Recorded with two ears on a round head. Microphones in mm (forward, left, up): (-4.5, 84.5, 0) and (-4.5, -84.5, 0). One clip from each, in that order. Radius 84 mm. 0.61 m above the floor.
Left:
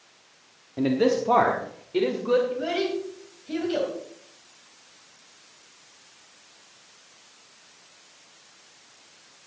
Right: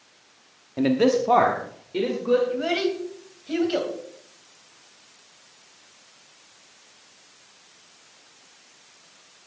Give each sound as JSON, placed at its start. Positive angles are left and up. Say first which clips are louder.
{"t": 0.8, "sound": "a man speaking", "louder": "right 2 dB", "side_deg": -30, "distance_m": 0.8}
{"t": 2.5, "sound": "a child speaking", "louder": "right 2 dB", "side_deg": -35, "distance_m": 3.0}